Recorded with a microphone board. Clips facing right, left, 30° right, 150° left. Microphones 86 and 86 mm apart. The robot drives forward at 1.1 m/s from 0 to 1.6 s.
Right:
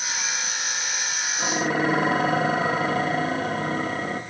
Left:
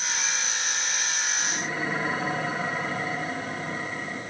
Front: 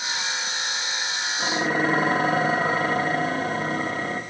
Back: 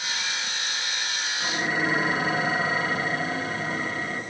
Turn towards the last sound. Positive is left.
turn(degrees=-75)